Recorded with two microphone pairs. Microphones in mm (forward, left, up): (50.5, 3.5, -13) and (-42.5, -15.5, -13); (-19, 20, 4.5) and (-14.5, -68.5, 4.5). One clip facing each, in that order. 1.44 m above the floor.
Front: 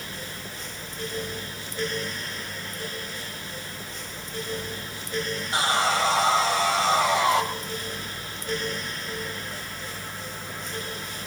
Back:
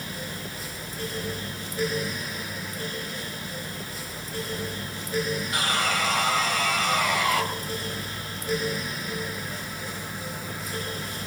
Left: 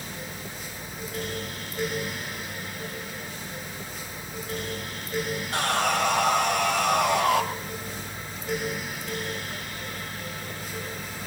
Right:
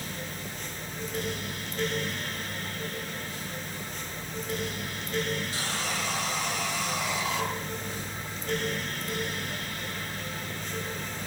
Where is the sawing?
70° left, 3.5 m.